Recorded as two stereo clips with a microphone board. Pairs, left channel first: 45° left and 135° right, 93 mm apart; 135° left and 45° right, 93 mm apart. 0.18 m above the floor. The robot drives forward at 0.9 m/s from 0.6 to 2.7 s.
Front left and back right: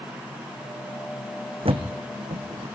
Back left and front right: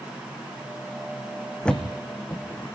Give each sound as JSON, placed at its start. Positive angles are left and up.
{"t": 1.6, "sound": "a thud", "azimuth_deg": -145, "distance_m": 1.7}